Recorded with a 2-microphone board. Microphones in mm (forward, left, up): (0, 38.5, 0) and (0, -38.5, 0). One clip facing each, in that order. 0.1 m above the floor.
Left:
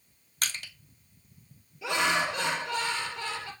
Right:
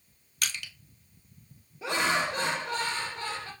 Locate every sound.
0.4 s crushing: 45° left (ahead or behind), 0.9 m
1.8 s laughter: 35° right (ahead or behind), 2.5 m